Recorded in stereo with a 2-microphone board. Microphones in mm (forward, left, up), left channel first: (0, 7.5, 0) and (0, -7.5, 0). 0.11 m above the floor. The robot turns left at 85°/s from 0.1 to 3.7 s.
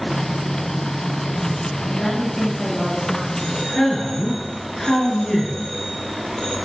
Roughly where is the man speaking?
Centre.